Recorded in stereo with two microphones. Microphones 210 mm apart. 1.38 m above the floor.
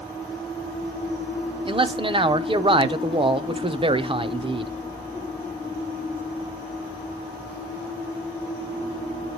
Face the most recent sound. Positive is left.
turn(degrees=-25)  # may be behind; listen again after turning